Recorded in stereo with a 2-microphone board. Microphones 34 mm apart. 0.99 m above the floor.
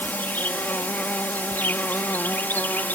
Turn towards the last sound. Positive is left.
turn(degrees=70)  # may be behind; listen again after turning